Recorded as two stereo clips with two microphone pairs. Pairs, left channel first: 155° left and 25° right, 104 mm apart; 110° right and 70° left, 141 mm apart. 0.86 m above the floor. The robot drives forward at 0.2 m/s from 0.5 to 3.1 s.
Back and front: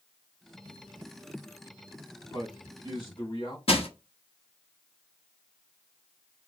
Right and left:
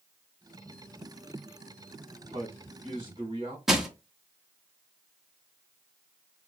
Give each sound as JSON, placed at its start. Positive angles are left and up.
{"t": 2.3, "sound": "a man speaking", "azimuth_deg": 115, "distance_m": 2.5}
{"t": 3.7, "sound": "crushing", "azimuth_deg": 155, "distance_m": 1.0}